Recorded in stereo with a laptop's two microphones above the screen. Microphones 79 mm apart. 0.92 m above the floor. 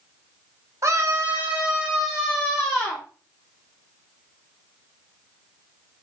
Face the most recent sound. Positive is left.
turn(degrees=5)  # may be behind; listen again after turning